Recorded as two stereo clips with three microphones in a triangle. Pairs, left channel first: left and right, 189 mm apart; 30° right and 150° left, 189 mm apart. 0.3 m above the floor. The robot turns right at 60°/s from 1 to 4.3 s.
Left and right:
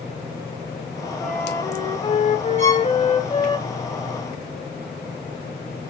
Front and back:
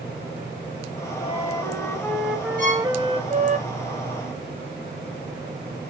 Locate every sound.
1.2 s a flute: straight ahead, 0.6 m; by 3.6 s 140° left, 0.6 m
2.6 s a violin: 40° right, 2.5 m; by 2.9 s 20° right, 2.5 m